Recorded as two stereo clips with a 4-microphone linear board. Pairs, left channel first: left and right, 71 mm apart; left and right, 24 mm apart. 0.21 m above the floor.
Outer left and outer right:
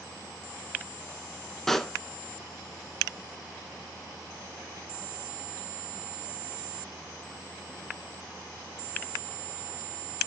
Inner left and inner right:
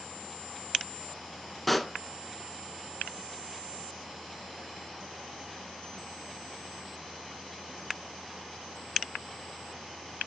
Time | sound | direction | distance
1.7 | a pop | 5° left (ahead or behind) | 0.5 m